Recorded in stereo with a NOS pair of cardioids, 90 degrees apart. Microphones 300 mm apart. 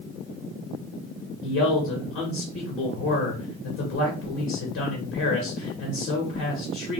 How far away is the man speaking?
About 1.4 m.